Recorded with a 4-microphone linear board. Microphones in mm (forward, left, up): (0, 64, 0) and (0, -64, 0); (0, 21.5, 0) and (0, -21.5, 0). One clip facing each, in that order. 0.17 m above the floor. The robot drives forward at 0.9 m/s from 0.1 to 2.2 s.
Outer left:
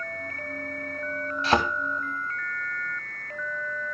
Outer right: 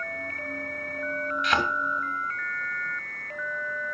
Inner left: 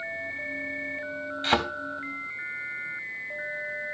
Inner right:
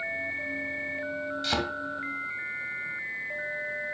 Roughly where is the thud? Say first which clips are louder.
Outer left 5 dB, inner left 6 dB; left.